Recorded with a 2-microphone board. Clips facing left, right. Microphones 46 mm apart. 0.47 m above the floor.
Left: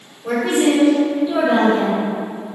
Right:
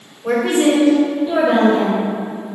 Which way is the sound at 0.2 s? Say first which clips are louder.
Right 2 dB; 30° right (ahead or behind).